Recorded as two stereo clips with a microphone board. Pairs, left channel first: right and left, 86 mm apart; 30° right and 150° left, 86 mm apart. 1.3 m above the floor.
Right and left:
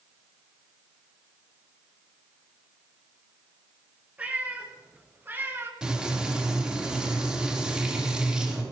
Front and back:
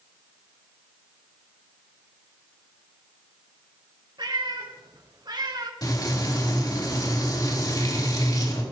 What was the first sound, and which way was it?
A cat meowing, 160° left.